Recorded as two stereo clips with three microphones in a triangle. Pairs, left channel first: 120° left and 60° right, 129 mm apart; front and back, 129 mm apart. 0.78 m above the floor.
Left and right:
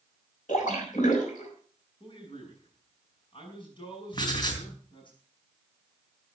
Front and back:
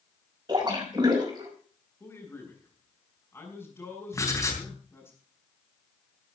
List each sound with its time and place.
0.5 s a splash: 125° left, 5 m
2.0 s a man speaking: 70° left, 6.5 m
4.1 s writing: 65° left, 3.5 m